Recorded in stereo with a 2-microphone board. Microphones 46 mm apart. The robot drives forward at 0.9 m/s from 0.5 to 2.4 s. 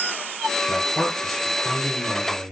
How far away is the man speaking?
About 1.8 m.